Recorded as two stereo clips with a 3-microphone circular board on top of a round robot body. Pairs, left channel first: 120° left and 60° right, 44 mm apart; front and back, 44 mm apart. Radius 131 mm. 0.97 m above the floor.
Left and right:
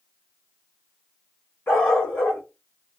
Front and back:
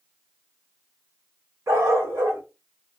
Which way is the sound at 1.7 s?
170° left.